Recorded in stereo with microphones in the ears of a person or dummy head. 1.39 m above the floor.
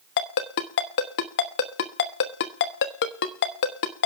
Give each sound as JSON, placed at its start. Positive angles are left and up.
{"t": 0.2, "sound": "a ringtone", "side_deg": 55, "distance_m": 1.1}